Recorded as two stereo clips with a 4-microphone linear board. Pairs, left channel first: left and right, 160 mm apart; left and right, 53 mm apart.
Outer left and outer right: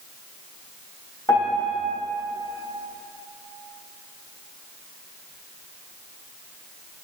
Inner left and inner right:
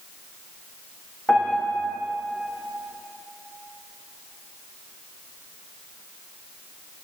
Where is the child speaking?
No child speaking in this recording.